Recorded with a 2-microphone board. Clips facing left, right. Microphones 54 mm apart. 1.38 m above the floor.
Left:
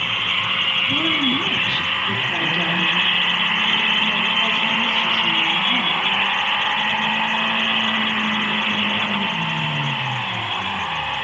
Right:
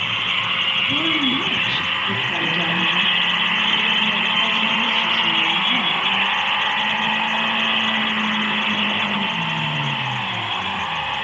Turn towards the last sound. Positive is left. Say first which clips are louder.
# even
turn(degrees=0)  # may be behind; listen again after turning